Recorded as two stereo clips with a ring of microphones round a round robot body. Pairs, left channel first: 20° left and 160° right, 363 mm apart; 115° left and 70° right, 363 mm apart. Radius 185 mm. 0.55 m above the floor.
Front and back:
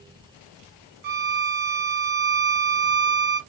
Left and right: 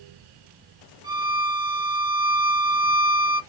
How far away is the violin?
About 0.6 m.